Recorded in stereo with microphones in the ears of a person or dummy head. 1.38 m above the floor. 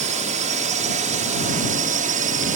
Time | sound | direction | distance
0.0 | a drone | 40° right (ahead or behind) | ?